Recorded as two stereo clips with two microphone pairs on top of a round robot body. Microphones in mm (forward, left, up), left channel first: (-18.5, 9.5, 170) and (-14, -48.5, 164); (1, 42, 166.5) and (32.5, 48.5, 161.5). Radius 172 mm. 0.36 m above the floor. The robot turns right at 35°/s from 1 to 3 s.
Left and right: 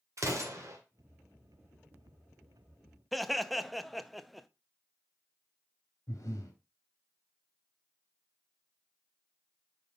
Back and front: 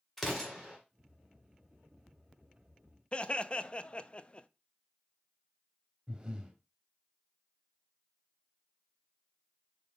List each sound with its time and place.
0.2 s an explosion: 75° right, 2.5 m
3.1 s laughter: 160° right, 0.8 m
6.1 s breathing: 65° left, 2.5 m